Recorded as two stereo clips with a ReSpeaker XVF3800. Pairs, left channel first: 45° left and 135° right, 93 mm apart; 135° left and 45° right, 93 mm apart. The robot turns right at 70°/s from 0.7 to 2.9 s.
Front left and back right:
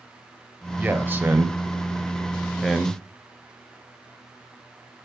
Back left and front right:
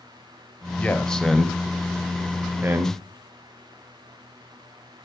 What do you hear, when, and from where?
0.8 s a man speaking: straight behind, 0.9 m; by 3.0 s 30° right, 0.9 m